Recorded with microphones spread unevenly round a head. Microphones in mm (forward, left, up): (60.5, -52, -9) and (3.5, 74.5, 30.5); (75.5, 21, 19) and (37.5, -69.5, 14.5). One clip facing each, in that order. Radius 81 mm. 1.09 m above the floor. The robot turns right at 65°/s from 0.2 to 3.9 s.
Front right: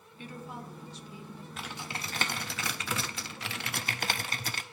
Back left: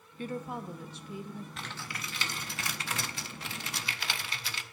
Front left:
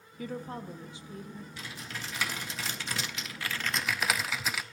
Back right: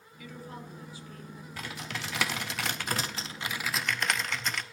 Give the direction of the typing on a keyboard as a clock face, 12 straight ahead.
6 o'clock.